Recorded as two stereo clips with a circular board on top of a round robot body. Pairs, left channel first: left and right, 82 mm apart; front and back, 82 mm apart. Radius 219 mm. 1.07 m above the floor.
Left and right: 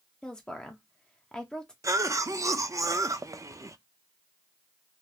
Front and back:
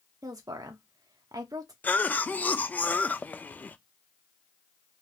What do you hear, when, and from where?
0.2 s a woman speaking: 165° left, 0.7 m
1.8 s a cough: 60° right, 0.6 m